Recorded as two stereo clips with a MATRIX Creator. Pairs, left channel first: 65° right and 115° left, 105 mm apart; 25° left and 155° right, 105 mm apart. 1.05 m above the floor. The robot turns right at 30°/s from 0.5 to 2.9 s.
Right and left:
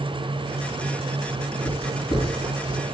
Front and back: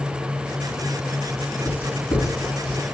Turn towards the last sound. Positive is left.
turn(degrees=-15)